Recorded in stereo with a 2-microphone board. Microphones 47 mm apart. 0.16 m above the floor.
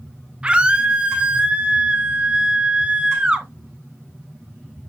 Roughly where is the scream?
Right.